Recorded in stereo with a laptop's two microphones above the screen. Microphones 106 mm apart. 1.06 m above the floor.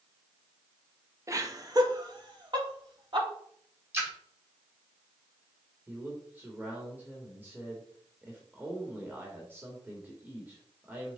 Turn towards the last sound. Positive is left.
turn(degrees=-20)  # may be behind; listen again after turning